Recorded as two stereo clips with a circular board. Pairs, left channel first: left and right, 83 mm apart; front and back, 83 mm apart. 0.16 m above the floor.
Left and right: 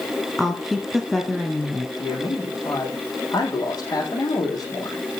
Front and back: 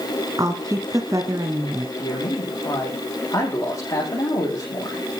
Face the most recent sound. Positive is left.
turn(degrees=50)